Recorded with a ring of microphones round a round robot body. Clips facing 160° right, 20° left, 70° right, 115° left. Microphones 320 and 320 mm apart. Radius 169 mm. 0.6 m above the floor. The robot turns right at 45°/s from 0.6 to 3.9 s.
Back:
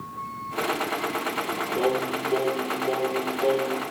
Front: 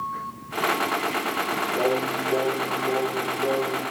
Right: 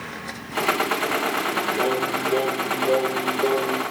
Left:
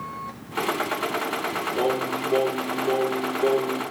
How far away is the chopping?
No chopping in this recording.